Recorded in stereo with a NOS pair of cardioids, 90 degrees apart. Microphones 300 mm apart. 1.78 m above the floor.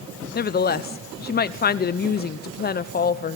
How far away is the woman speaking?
About 0.8 m.